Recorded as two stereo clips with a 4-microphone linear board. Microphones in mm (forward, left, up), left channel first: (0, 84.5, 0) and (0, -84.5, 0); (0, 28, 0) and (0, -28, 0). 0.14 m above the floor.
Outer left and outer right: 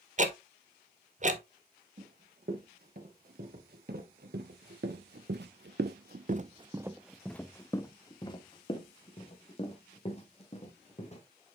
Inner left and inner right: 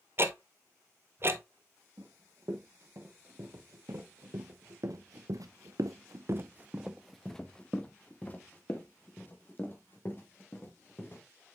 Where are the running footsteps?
60° right (ahead or behind), 2.5 m; by 11.2 s 40° left (ahead or behind), 2.5 m.